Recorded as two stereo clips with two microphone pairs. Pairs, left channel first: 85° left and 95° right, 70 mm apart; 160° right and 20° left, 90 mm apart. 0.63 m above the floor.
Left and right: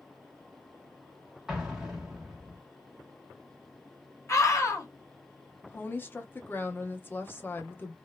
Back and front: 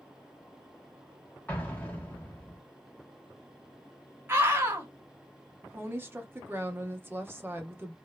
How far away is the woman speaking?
About 0.6 m.